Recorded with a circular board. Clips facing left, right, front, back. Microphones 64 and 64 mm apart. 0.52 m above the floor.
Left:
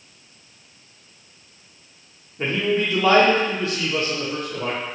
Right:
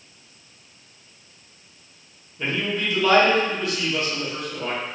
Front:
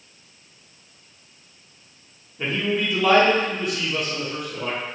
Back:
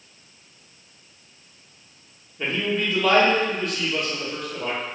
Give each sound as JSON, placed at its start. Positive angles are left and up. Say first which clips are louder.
{"t": 2.4, "sound": "a man speaking", "louder": "left 4 dB, front 1 dB", "azimuth_deg": 75, "distance_m": 0.9}